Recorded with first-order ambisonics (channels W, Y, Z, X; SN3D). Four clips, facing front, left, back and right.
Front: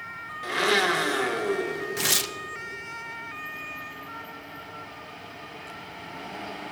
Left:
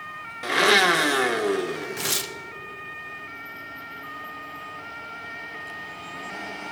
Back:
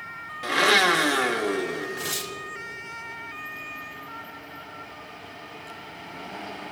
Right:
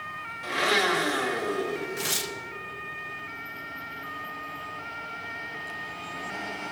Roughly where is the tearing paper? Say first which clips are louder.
Left 2 dB, front 5 dB; ahead.